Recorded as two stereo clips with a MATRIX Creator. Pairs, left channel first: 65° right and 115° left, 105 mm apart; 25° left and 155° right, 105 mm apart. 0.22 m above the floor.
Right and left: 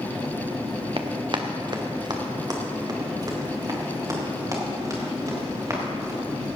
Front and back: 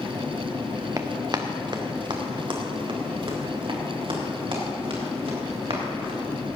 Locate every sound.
1.0 s running footsteps: 145° left, 1.5 m; by 6.2 s 170° left, 7.5 m